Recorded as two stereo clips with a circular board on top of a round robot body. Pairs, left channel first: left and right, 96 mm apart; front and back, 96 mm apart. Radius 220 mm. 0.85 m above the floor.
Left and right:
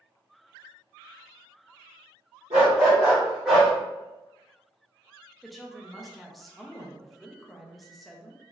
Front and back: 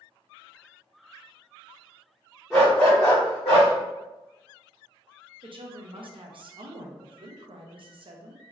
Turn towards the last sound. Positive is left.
turn(degrees=180)